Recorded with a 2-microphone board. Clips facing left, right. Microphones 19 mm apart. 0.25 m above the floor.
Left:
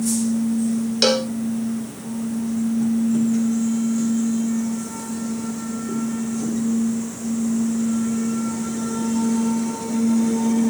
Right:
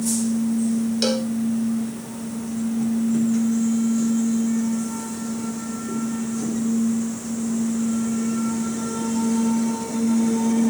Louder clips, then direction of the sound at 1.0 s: Left 8 dB; 35° left (ahead or behind).